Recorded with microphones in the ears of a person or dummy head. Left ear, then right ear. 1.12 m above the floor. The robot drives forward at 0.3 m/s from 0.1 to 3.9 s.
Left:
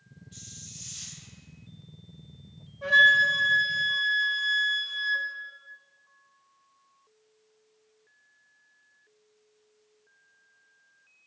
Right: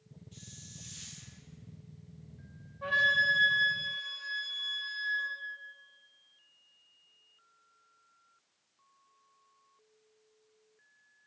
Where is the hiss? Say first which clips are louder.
Left 7 dB; 10° right (ahead or behind), 1.3 m.